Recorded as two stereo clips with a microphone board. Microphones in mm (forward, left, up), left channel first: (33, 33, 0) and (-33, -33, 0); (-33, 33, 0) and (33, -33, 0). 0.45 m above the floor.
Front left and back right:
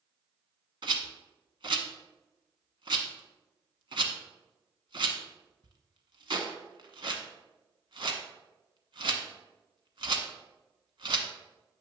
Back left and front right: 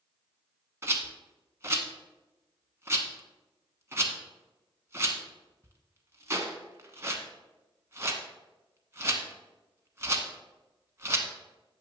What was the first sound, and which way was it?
A rattle, 105° right.